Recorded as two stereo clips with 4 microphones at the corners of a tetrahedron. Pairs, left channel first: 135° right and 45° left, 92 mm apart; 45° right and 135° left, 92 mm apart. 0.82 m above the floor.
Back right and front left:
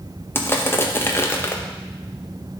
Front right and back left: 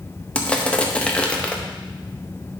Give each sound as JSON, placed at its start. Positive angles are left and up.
{"t": 0.3, "sound": "crushing", "azimuth_deg": -110, "distance_m": 0.8}